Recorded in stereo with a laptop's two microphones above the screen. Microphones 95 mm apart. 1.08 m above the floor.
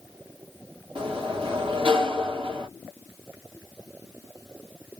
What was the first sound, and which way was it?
A sliding door, 60° right (ahead or behind).